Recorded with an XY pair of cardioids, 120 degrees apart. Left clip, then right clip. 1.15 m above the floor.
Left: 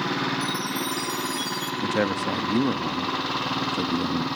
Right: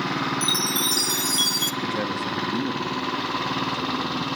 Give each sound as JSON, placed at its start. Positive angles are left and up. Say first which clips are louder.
{"t": 0.4, "sound": "a chime", "louder": "right 5 dB", "azimuth_deg": -60, "distance_m": 1.3}
{"t": 1.8, "sound": "a man speaking", "louder": "left 2 dB", "azimuth_deg": 40, "distance_m": 1.6}